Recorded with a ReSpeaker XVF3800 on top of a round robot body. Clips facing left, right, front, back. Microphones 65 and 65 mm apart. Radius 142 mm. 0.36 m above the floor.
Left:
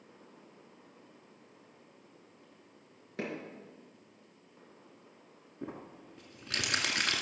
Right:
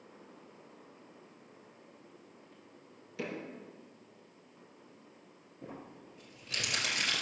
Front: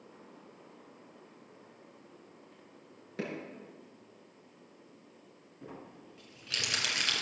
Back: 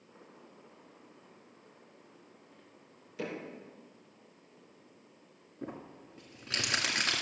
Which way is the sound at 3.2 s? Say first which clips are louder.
Left 1 dB, even; 45° left.